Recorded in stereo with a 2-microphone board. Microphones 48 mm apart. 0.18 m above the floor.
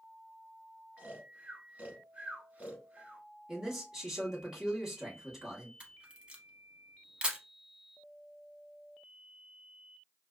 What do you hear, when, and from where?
1.0 s snoring: 30° right (ahead or behind), 1.0 m
3.5 s a man speaking: 10° right (ahead or behind), 1.3 m
5.8 s a camera shutter: 25° right (ahead or behind), 0.7 m